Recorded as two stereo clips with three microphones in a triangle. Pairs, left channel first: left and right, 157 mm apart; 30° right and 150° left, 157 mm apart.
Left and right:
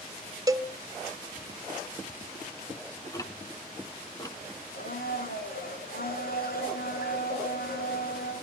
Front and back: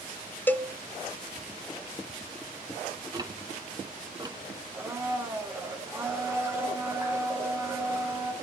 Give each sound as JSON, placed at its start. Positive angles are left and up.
{"t": 0.5, "sound": "a cowbell", "azimuth_deg": -90, "distance_m": 0.6}
{"t": 3.1, "sound": "ticking", "azimuth_deg": 125, "distance_m": 1.4}
{"t": 4.7, "sound": "a blender", "azimuth_deg": 75, "distance_m": 8.0}